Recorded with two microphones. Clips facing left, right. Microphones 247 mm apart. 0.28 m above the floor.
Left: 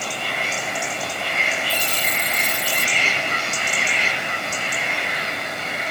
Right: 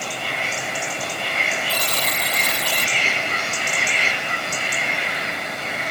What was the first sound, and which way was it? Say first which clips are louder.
A buzzer: right 1 dB; 80° right.